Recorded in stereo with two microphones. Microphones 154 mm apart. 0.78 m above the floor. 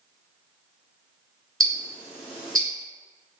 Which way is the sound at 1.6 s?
Centre (ahead or behind).